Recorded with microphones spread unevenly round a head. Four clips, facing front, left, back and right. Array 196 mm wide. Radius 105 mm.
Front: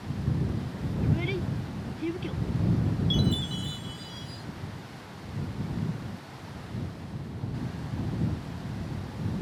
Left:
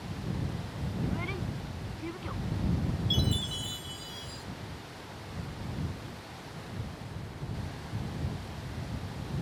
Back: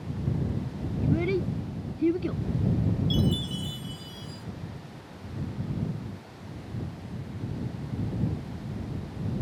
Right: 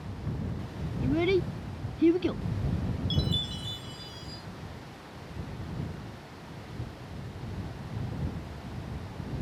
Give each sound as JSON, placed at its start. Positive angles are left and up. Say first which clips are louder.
{"t": 1.0, "sound": "a child speaking", "louder": "right 12 dB, back 5 dB", "azimuth_deg": -120}
{"t": 3.1, "sound": "a chime", "louder": "even, back 1 dB", "azimuth_deg": 155}